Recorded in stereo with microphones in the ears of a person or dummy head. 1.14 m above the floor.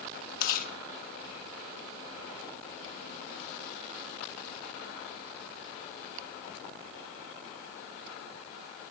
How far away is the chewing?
About 1.5 m.